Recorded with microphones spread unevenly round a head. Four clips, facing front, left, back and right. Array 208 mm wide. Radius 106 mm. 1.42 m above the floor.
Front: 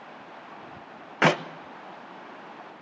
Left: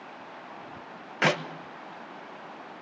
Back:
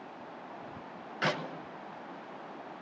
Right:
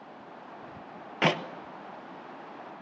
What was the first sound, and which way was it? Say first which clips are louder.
A clap: left 1 dB, front 10 dB; 5° right.